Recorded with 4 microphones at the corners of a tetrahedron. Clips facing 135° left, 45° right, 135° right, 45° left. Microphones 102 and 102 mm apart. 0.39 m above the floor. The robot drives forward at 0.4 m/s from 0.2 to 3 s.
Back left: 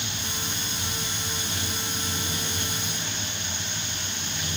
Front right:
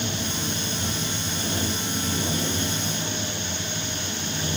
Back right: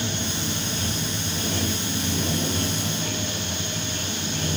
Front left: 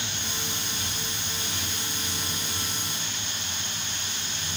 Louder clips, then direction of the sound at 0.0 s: Front right 6 dB, back right 7 dB; 90° right.